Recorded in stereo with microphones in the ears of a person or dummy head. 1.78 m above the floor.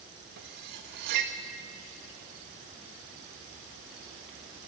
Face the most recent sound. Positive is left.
turn(degrees=-45)  # may be behind; listen again after turning